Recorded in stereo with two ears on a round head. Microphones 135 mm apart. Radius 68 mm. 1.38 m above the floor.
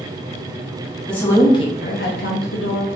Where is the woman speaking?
5° left (ahead or behind), 0.9 m; by 2.9 s 70° left (ahead or behind), 1.0 m.